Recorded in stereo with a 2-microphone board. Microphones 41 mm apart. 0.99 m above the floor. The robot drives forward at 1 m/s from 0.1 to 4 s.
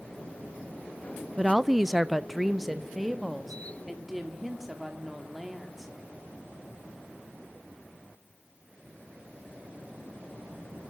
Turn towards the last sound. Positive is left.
turn(degrees=0)  # may be behind; listen again after turning